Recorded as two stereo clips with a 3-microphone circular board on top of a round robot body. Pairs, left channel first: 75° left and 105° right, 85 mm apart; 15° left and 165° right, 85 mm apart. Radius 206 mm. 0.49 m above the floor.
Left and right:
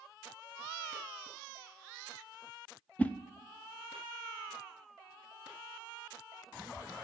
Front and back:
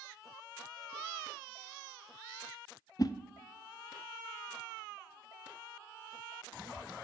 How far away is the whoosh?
About 0.7 m.